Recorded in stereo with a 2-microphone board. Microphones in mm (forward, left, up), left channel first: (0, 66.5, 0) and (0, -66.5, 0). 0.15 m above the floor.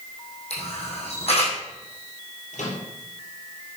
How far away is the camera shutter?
About 4 m.